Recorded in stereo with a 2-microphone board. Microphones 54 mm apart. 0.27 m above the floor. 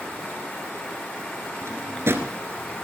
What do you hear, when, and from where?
1.6 s a drawer: 55° right (ahead or behind), 1.1 m